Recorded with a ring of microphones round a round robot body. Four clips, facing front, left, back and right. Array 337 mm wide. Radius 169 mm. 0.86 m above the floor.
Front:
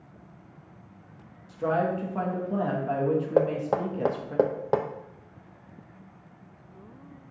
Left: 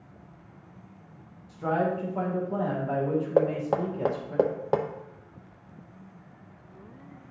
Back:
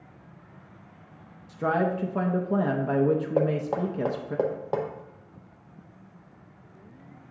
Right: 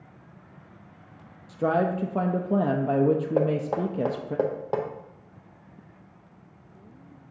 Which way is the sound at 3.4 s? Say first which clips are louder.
Even, front 1 dB; 45° left.